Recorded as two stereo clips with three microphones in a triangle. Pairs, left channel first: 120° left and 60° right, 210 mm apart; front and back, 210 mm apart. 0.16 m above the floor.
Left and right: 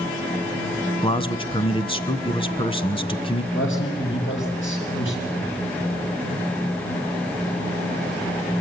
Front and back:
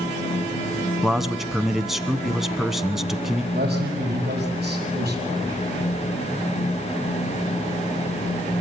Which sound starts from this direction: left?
A man speaking, at 1.0 s.